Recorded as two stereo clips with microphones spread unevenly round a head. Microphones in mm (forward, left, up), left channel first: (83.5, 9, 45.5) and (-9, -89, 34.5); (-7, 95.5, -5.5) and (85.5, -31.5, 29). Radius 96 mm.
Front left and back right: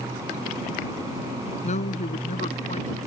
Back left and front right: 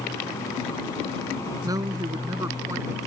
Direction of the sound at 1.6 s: 15° left.